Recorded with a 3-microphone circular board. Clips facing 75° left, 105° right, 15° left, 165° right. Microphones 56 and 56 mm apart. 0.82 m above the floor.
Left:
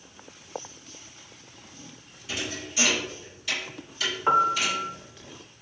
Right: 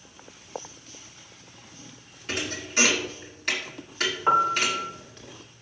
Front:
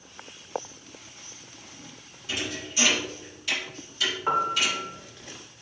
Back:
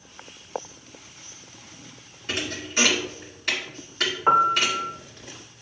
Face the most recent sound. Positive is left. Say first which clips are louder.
# even, back 7 dB
turn(degrees=170)